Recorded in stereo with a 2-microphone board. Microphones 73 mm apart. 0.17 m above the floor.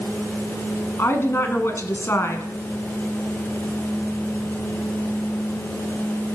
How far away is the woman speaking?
About 1.4 m.